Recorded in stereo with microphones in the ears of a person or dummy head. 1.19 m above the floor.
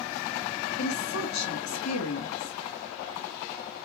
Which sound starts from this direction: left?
A woman speaking, at 0.8 s.